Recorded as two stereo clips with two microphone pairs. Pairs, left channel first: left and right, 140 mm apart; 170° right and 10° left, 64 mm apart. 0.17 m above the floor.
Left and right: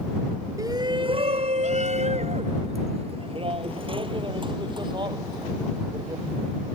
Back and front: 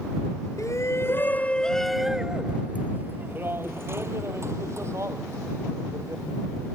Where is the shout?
150° right; by 6.2 s 30° right.